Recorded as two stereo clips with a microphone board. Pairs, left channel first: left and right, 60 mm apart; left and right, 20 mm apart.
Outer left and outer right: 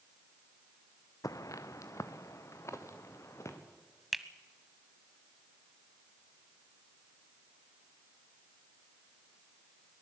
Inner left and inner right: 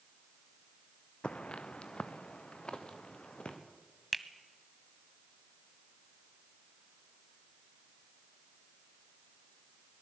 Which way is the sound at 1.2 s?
70° left (ahead or behind).